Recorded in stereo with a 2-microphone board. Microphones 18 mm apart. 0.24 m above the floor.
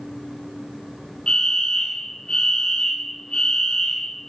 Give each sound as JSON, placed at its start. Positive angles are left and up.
{"t": 1.3, "sound": "a fire alarm", "side_deg": 55, "distance_m": 4.0}